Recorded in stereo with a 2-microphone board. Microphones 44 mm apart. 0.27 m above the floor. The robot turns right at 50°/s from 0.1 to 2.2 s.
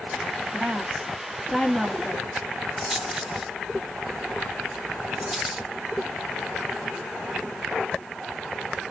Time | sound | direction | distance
0.5 | a woman speaking | 70° right | 1.5 m
2.8 | a rattle | 10° right (ahead or behind) | 1.6 m